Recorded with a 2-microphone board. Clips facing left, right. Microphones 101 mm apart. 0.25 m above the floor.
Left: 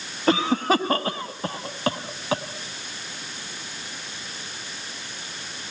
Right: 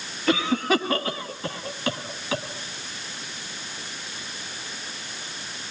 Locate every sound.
0.3 s a cough: 35° left (ahead or behind), 1.4 m